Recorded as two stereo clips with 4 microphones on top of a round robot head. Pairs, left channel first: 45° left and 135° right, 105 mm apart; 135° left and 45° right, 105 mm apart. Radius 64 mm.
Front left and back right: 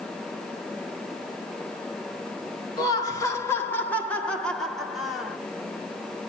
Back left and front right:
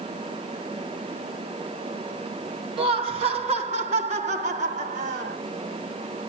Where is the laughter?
10° right, 2.5 m; by 5.4 s 50° right, 3 m.